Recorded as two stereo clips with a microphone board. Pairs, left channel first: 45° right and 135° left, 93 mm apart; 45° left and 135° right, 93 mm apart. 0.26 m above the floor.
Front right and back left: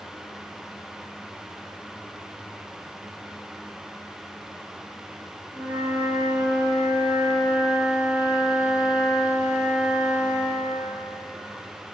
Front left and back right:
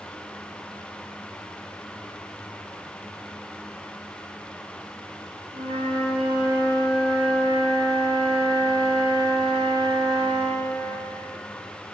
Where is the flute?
150° right, 1.2 m.